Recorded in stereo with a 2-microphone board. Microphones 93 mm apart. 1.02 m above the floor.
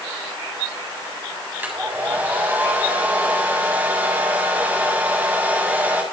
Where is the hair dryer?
20° right (ahead or behind), 7.5 m.